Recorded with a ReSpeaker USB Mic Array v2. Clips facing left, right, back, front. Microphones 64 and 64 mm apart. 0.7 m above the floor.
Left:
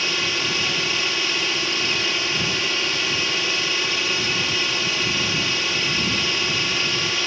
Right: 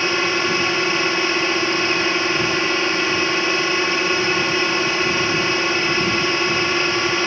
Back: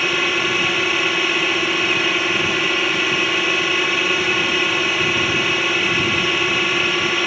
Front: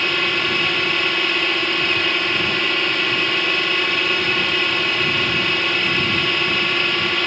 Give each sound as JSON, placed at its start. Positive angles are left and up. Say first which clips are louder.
{"t": 0.0, "sound": "a drone", "louder": "right 6 dB, back 1 dB", "azimuth_deg": -100}